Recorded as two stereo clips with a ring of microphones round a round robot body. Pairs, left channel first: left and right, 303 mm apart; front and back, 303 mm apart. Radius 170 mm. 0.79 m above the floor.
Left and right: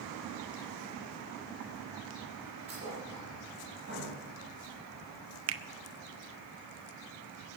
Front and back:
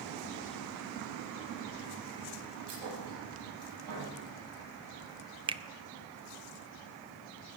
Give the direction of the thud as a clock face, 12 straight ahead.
5 o'clock.